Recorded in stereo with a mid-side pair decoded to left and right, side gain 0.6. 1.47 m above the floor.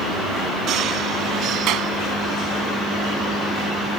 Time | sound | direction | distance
1.7 | a clap | 65° right | ?